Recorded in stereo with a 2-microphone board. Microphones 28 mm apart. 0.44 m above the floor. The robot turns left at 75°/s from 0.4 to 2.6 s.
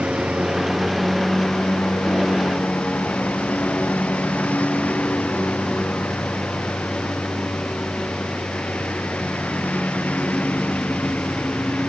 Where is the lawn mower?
130° right; by 11.9 s 65° left.